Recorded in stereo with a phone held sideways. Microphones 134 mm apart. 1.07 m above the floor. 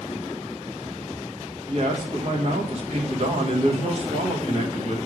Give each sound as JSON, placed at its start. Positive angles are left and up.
{"t": 1.7, "sound": "a man speaking", "side_deg": -55, "distance_m": 1.3}